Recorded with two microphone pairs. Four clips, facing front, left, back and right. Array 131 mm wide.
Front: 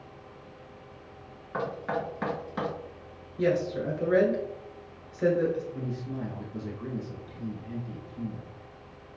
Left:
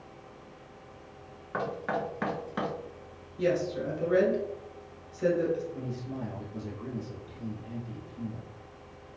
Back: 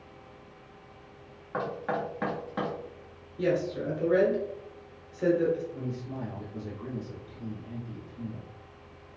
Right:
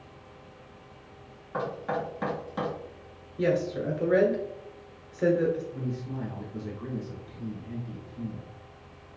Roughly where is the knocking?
Left.